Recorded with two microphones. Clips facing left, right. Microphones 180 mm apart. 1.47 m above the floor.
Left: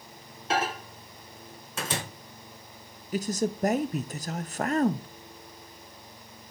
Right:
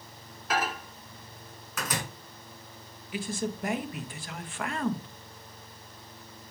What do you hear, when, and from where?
0.5 s a microwave: 25° left (ahead or behind), 1.0 m
3.1 s a man speaking: 40° left (ahead or behind), 0.6 m